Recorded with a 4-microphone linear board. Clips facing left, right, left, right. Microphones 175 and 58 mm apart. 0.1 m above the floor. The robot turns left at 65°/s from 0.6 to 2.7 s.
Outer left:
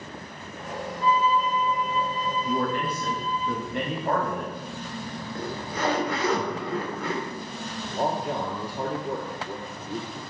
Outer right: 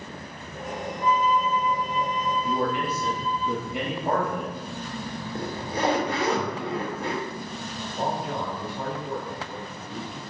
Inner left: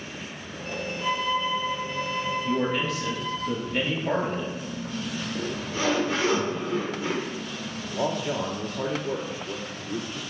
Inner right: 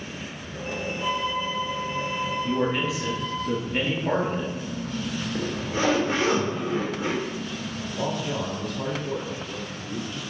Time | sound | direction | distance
1.0 | a violin | 25° left | 1.1 m
2.5 | a man speaking | centre (ahead or behind) | 1.4 m
5.3 | a zipper | 25° right (ahead or behind) | 1.6 m
7.9 | a man speaking | 45° left (ahead or behind) | 1.7 m